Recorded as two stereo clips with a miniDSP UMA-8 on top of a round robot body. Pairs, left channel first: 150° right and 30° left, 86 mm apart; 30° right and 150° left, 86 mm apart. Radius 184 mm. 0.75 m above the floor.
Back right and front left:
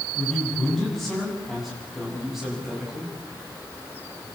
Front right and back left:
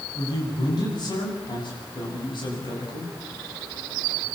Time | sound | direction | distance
0.1 | a man speaking | 70° right | 8.5 m